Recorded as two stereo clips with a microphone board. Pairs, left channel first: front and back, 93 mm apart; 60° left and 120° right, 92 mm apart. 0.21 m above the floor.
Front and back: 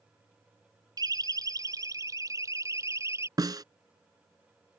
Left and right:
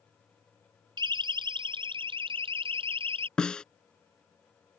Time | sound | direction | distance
1.0 | a siren | 145° right | ?
3.4 | a snare drum | 140° left | ?